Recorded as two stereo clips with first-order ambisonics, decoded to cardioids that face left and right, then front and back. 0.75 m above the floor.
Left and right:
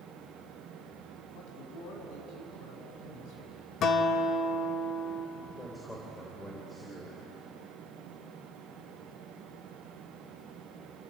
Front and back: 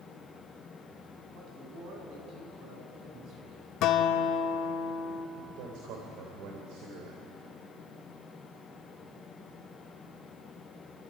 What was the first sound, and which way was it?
A man speaking, 130° left.